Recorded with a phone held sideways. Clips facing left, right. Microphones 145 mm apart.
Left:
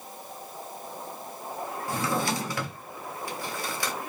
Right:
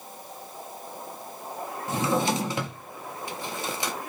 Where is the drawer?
20° right (ahead or behind), 0.9 m.